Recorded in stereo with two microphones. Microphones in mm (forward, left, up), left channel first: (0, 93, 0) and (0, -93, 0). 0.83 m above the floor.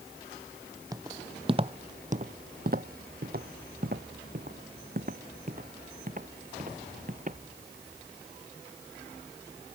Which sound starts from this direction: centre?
Footsteps, at 0.9 s.